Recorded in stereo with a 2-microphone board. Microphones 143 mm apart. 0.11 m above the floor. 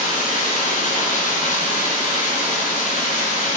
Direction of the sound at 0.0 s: 75° left (ahead or behind).